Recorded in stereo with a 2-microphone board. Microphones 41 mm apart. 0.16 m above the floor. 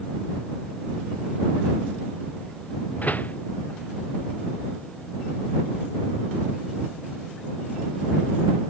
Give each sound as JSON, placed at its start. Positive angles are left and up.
{"t": 3.0, "sound": "a door slam", "side_deg": 40}